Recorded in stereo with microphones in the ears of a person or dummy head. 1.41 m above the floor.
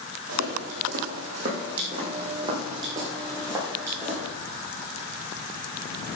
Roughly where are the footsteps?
Right.